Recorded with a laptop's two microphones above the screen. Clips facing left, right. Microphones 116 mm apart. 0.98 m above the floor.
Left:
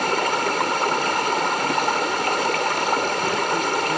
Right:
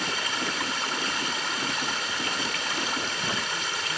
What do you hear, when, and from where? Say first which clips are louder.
0.0 s running water: left 10 dB; 60° left (ahead or behind)